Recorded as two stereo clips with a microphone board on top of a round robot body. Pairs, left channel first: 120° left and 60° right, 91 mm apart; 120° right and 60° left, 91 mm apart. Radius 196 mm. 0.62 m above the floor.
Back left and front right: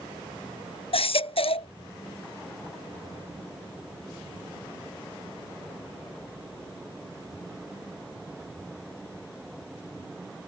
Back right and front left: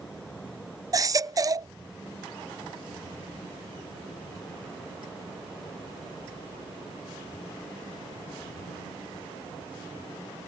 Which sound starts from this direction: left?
A baby crying, at 0.9 s.